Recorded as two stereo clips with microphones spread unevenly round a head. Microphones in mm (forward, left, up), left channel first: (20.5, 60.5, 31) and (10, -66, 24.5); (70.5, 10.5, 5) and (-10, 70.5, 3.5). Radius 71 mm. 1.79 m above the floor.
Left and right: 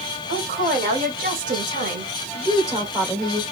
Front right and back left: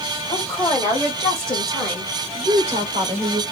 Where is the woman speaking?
105° right, 1.9 m; by 3.4 s 175° right, 1.5 m.